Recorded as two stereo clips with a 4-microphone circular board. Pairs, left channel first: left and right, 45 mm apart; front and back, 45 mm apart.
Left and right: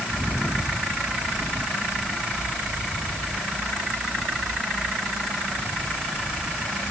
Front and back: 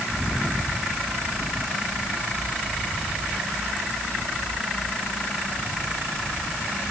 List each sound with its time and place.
Only background noise.